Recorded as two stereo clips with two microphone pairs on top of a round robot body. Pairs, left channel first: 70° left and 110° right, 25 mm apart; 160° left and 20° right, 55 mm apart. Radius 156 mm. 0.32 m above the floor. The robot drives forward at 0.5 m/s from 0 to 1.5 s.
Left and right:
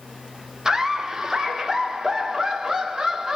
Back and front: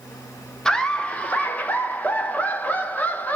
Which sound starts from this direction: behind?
Laughter, at 0.7 s.